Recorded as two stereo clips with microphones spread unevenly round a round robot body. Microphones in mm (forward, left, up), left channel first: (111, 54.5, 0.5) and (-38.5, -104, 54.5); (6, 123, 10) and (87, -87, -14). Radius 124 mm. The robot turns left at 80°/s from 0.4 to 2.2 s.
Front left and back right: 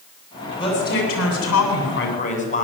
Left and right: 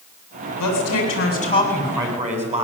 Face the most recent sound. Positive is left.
turn(degrees=-10)